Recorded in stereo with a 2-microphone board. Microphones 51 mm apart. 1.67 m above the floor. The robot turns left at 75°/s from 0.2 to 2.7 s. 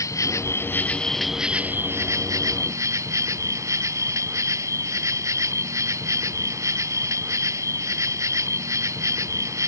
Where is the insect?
80° left; by 9.7 s 110° right.